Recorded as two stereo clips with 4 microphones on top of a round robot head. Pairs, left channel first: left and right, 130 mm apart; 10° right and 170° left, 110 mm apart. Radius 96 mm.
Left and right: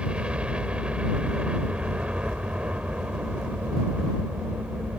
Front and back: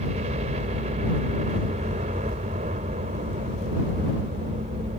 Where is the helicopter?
170° right.